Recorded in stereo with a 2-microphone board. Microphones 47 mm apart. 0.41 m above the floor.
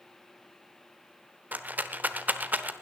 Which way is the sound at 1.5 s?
35° right (ahead or behind).